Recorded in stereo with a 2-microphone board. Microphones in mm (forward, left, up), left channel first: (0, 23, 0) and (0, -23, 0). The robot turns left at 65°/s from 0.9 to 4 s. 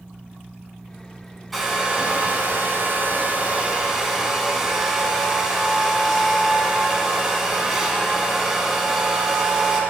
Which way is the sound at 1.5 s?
Straight ahead.